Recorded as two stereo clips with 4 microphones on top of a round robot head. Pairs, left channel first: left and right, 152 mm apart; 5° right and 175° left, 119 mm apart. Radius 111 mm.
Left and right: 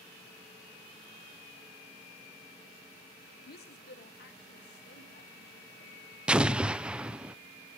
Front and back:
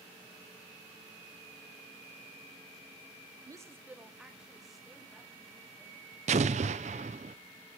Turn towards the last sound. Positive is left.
turn(degrees=-170)